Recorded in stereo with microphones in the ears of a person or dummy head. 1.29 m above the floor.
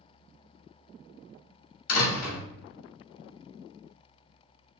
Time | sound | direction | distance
1.9 | a door slam | 55° left (ahead or behind) | 2.5 m